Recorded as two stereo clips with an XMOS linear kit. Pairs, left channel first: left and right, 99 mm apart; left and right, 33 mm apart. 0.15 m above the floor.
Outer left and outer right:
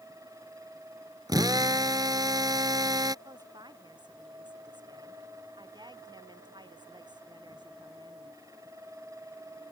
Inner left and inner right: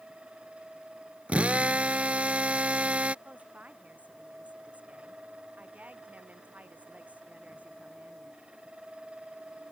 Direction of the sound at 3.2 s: 50° right (ahead or behind).